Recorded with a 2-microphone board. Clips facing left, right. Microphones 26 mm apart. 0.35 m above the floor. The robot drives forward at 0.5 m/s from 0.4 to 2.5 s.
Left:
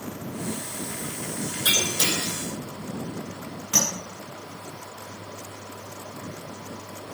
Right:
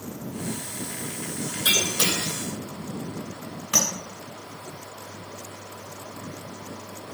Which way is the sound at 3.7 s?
70° right (ahead or behind).